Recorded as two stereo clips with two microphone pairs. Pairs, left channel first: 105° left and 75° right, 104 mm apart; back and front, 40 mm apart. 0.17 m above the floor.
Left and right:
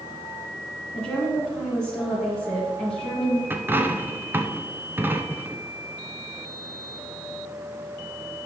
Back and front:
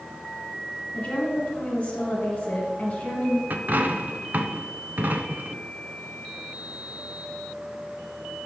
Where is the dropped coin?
15° right, 0.7 m.